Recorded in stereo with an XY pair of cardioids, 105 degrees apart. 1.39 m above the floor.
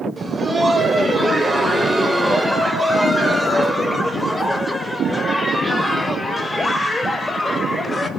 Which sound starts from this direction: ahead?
Laughter, at 0.2 s.